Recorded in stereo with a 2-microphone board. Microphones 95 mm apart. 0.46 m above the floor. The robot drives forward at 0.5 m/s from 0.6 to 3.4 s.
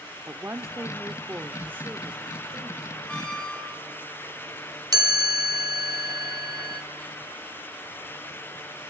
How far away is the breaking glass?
I don't hear breaking glass.